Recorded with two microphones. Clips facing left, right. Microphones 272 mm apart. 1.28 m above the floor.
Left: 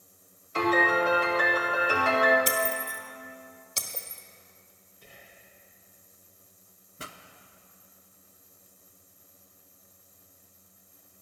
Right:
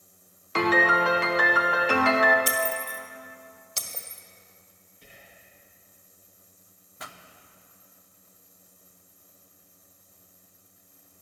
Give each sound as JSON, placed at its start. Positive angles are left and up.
{"t": 0.6, "sound": "a piano", "side_deg": -75, "distance_m": 1.1}
{"t": 2.5, "sound": "breaking glass", "side_deg": 20, "distance_m": 1.5}
{"t": 5.0, "sound": "whispering", "side_deg": -25, "distance_m": 2.0}
{"t": 7.0, "sound": "a pop", "side_deg": 30, "distance_m": 0.7}